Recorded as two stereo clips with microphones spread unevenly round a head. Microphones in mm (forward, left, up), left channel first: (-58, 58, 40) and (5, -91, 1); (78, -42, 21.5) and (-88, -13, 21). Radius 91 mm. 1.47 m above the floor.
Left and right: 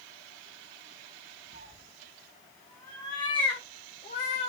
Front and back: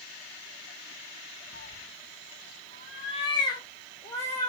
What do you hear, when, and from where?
1.5 s a cat meowing: 5° right, 1.2 m; by 4.5 s 65° left, 3 m